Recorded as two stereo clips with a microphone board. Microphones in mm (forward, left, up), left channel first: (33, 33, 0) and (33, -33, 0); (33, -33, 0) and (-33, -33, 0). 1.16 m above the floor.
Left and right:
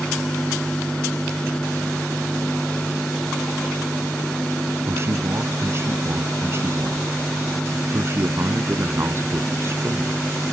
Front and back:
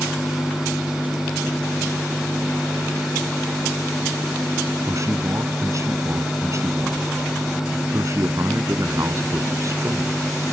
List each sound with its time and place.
4.9 s a man speaking: 140° right